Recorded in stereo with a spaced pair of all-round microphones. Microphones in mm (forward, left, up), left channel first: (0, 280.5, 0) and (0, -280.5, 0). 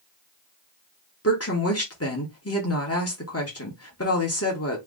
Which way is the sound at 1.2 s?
25° left (ahead or behind).